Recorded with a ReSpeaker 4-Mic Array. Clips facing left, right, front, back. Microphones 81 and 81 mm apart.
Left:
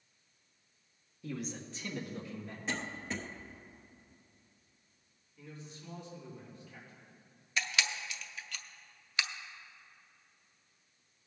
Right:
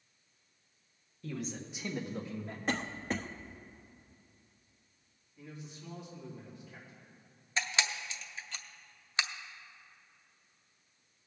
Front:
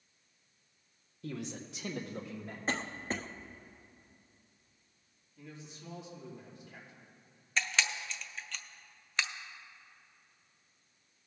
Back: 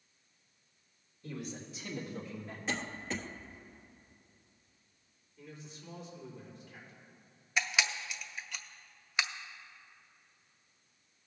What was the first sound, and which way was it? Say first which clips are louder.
A man speaking: right 1 dB, front 2 dB; 10° left.